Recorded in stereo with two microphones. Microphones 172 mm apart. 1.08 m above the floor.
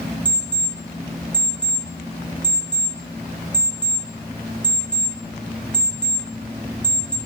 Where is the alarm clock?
10° left (ahead or behind), 3 m.